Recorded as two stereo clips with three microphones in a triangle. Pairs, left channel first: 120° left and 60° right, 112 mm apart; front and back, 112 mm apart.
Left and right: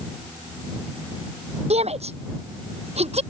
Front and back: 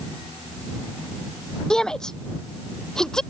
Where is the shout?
85° right.